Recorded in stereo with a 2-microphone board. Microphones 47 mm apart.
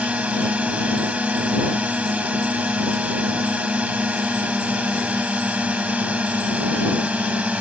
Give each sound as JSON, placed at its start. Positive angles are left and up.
{"t": 0.0, "sound": "a drone", "side_deg": -30}